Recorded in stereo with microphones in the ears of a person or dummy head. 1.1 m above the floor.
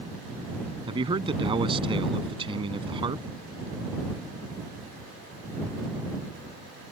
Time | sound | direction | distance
0.9 | a man speaking | 25° right (ahead or behind) | ?